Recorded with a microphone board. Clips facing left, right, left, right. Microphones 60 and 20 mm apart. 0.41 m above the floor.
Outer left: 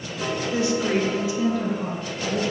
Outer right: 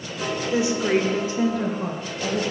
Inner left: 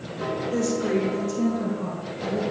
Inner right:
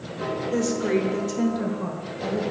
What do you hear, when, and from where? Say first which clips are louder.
0.5 s a woman speaking: outer right 2 dB, inner right 1 dB; 15° right (ahead or behind), 1.2 m; by 2.4 s 40° right (ahead or behind), 1.9 m